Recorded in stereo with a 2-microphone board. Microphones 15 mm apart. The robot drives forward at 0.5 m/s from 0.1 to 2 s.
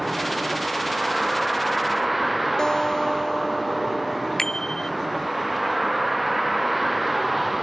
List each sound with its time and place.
0.0 s a vehicle: 10° right (ahead or behind)
2.6 s a guitar: 45° left (ahead or behind)
4.4 s a bicycle bell: 40° left (ahead or behind)